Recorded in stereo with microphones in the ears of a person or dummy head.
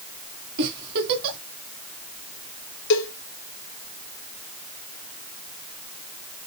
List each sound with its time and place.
0.6 s a giggle: 60° right (ahead or behind), 2 m
2.9 s a cowbell: 70° left (ahead or behind), 2.5 m